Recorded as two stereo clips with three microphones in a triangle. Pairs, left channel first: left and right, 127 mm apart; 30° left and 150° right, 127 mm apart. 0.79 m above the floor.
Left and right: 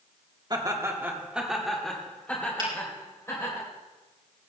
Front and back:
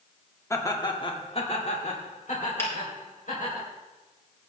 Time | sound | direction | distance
0.5 | laughter | 35° right | 1.7 m
2.6 | a finger snap | 40° right | 3.5 m